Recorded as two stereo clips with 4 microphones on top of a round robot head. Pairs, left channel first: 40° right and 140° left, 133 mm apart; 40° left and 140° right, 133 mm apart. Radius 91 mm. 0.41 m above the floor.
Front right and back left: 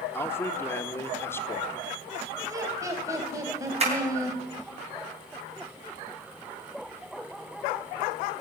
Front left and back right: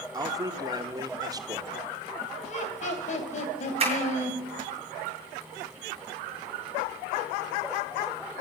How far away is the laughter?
About 3 m.